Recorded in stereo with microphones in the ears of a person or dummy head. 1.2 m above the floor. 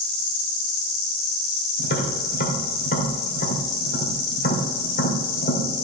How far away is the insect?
About 1.1 m.